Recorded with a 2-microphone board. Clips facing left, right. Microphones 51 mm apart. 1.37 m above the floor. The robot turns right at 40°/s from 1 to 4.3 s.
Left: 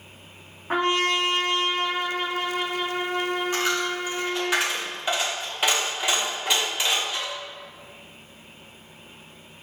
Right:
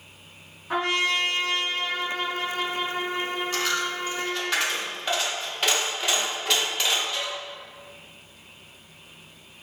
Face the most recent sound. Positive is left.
turn(degrees=10)  # may be behind; listen again after turning